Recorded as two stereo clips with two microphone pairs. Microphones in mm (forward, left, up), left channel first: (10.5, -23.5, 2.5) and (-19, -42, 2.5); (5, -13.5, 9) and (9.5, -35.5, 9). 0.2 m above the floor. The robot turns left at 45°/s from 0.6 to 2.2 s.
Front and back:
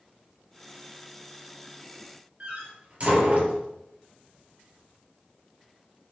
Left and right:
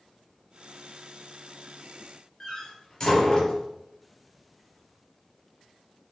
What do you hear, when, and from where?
2.4 s a door slam: 165° left, 3 m